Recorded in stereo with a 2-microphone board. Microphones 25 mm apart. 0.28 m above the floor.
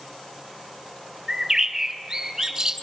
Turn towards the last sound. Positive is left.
turn(degrees=-25)  # may be behind; listen again after turning